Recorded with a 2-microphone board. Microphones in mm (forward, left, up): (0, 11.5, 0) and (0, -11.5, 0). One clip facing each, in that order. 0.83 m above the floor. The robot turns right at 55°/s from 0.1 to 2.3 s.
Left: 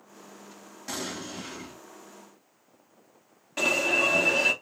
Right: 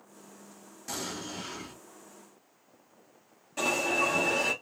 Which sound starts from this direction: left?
An alarm, at 3.6 s.